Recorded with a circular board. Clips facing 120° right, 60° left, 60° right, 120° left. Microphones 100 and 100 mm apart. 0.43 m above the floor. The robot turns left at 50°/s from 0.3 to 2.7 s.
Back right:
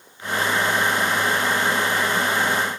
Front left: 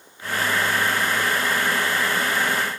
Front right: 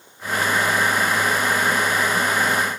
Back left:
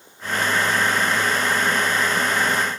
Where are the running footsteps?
No running footsteps in this recording.